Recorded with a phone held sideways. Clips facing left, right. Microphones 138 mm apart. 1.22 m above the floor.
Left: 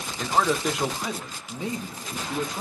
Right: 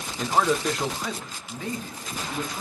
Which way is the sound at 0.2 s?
10° right (ahead or behind).